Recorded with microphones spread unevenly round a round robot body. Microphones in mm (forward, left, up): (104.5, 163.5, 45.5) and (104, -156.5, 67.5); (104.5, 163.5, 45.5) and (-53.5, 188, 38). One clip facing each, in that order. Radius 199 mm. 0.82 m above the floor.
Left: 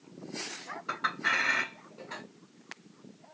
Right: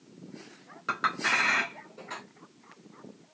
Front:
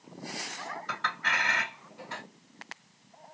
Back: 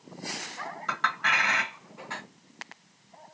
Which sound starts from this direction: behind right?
A clink, at 0.9 s.